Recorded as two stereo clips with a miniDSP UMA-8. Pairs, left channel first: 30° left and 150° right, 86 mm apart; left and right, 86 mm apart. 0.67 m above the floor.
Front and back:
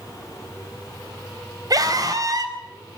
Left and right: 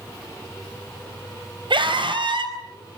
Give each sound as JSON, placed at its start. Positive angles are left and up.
{"t": 1.7, "sound": "a scream", "azimuth_deg": -105, "distance_m": 4.0}